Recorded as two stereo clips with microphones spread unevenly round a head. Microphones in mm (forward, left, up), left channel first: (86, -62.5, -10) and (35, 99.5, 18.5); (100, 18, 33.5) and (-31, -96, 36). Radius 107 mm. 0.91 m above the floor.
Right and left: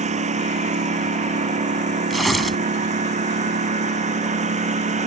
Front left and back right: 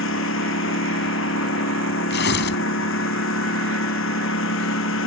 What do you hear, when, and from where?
0.0 s a lawn mower: 60° left
2.1 s tearing paper: 20° left